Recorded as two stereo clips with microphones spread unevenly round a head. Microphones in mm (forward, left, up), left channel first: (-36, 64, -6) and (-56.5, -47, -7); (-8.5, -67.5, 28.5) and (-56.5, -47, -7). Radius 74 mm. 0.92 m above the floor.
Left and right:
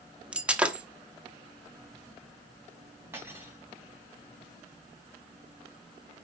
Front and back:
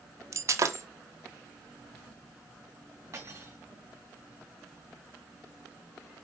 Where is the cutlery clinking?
170° right, 4 m.